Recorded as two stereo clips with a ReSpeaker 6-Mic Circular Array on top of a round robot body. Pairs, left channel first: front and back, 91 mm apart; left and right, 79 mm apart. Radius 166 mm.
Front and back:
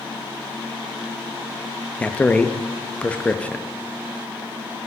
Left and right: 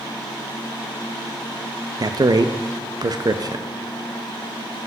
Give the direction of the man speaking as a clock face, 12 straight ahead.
2 o'clock.